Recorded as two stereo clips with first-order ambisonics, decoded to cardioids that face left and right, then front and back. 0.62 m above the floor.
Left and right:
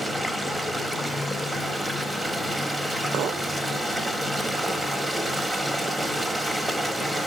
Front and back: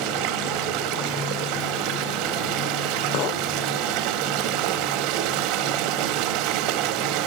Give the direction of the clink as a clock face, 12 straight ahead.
1 o'clock.